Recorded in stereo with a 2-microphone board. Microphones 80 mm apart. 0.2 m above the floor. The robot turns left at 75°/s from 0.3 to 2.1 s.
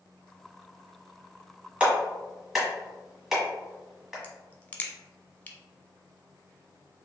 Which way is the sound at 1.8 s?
15° right (ahead or behind).